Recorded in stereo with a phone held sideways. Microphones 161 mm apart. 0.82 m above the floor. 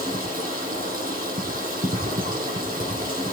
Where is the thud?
I don't hear a thud.